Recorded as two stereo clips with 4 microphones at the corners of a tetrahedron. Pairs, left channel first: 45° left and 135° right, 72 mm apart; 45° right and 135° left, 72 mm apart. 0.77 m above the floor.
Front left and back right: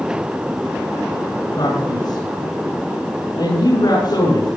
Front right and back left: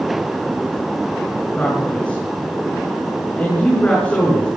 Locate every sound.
1.6 s a man speaking: 25° left, 9 m